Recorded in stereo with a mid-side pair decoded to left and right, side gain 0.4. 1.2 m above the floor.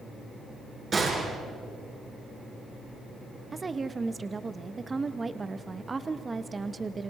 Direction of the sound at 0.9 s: 45° right.